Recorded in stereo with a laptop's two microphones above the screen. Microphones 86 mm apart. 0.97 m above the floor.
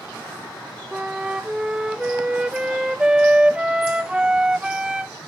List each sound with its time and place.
0.9 s a flute: 10° right (ahead or behind), 0.7 m